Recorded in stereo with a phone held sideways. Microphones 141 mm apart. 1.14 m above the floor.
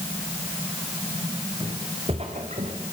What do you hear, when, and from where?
1.6 s footsteps: 35° right (ahead or behind), 4 m; by 2.8 s 60° right (ahead or behind), 3.5 m